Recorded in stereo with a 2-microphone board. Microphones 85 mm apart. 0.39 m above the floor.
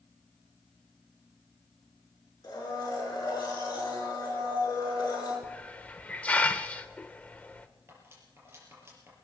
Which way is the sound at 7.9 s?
30° right (ahead or behind).